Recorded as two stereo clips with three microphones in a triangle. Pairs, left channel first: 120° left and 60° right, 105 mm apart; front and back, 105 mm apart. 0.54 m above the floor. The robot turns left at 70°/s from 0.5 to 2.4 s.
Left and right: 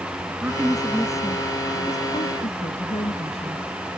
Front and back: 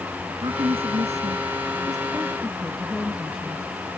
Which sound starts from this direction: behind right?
A woman speaking, at 0.3 s.